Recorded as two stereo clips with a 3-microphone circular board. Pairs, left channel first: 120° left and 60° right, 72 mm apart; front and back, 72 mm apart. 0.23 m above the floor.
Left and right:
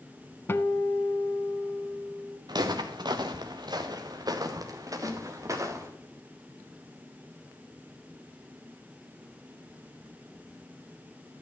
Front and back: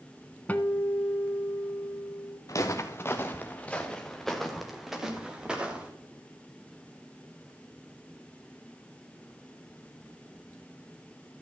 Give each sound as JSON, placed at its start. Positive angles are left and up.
{"t": 0.5, "sound": "a guitar", "azimuth_deg": 65, "distance_m": 0.5}
{"t": 2.5, "sound": "footsteps", "azimuth_deg": -40, "distance_m": 1.5}
{"t": 5.0, "sound": "a snare drum", "azimuth_deg": -165, "distance_m": 1.6}